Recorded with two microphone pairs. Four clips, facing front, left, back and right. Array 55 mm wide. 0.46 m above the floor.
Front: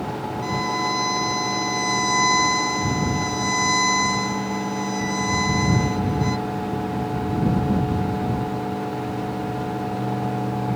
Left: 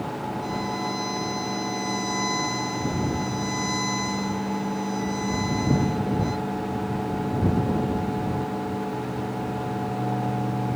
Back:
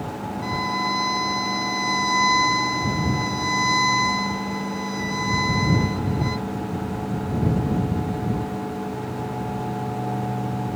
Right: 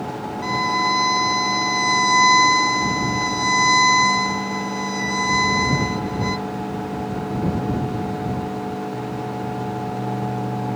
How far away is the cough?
No cough in this recording.